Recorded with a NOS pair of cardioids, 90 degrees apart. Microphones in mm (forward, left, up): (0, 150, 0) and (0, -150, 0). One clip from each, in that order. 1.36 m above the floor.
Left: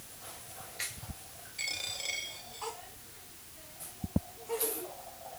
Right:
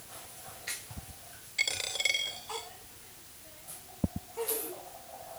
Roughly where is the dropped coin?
Ahead right.